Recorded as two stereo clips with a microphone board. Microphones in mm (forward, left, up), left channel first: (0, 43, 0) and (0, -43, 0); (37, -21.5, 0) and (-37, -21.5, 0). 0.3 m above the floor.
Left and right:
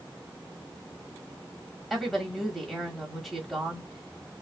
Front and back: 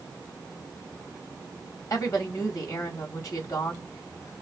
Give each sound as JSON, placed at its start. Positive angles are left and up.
{"t": 1.9, "sound": "a woman speaking", "azimuth_deg": 5, "distance_m": 1.2}